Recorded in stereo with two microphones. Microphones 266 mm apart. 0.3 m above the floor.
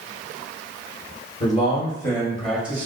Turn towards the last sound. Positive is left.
turn(degrees=-10)  # may be behind; listen again after turning